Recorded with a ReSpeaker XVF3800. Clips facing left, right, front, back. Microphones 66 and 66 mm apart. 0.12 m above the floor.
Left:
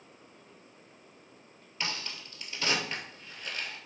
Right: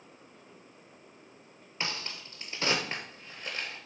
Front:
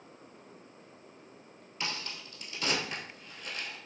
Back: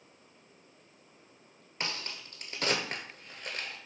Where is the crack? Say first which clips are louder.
Even, even; 145° right, 0.8 m.